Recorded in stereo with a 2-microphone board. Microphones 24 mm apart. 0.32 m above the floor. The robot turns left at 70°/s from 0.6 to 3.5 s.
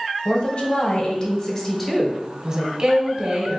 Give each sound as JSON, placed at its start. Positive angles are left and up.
{"t": 0.2, "sound": "a woman speaking", "azimuth_deg": 85, "distance_m": 1.1}